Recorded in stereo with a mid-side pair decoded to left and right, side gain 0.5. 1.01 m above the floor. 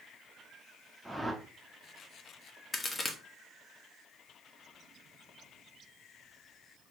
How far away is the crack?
About 0.8 m.